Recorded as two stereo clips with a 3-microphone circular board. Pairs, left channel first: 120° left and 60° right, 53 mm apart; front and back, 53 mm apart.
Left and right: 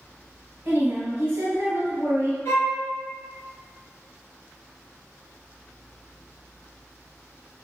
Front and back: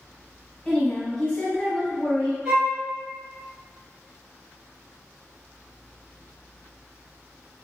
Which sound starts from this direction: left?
A violin, at 2.5 s.